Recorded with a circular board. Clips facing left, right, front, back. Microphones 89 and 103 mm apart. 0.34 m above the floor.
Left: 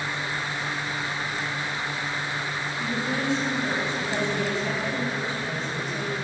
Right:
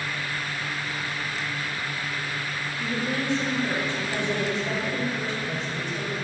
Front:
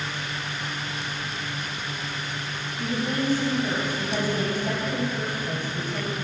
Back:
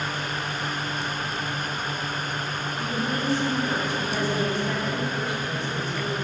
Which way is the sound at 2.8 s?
10° left.